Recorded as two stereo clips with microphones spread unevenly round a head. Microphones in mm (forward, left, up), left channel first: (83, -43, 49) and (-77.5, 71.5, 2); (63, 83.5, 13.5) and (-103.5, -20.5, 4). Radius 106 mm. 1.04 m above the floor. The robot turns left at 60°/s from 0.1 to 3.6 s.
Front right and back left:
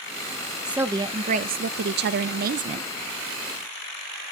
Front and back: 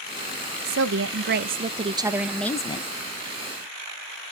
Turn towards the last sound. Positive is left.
turn(degrees=50)